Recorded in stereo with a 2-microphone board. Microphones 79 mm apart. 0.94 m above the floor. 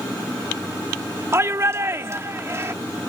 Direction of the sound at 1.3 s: 35° right (ahead or behind).